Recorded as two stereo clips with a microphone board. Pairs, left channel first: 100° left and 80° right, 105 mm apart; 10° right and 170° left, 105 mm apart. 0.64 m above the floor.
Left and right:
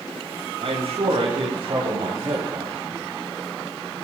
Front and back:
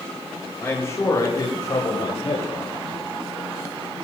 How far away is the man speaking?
About 3 m.